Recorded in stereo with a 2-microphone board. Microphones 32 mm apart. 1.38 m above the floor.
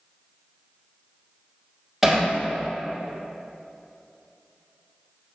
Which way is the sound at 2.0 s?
5° right (ahead or behind).